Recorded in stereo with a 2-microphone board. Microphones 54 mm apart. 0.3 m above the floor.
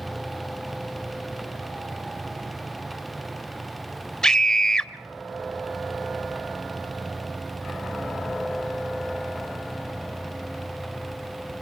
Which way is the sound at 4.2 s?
10° left (ahead or behind).